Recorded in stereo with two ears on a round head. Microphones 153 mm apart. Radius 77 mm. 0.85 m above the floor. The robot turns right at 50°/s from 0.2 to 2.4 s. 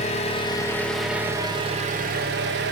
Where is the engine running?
140° left, 0.9 m; by 2.7 s 110° right, 0.9 m.